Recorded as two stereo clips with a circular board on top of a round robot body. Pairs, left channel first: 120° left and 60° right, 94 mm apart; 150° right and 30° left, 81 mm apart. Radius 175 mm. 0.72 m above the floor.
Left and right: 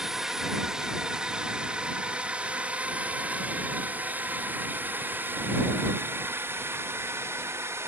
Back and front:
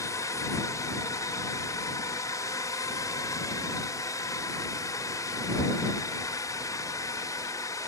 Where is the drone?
145° right; by 7.9 s 115° right.